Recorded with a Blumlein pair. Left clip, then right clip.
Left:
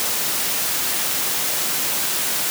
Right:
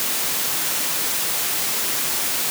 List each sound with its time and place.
Only background noise.